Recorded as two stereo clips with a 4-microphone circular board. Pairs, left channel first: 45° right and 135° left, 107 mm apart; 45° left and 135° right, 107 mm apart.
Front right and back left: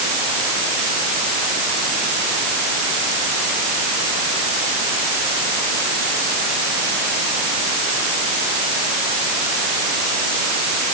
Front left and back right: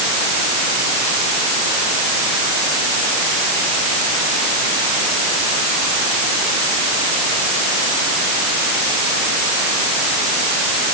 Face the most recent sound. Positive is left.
No sound to turn to.